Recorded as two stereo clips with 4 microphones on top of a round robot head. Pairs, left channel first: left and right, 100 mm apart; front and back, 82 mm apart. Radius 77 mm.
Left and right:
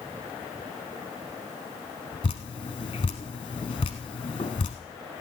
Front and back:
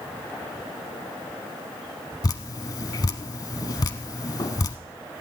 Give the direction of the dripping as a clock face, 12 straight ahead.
11 o'clock.